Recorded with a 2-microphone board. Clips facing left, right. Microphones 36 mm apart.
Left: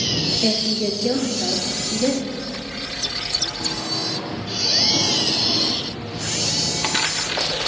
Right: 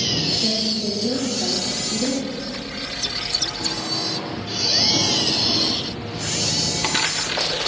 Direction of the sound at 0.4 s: 60° left (ahead or behind).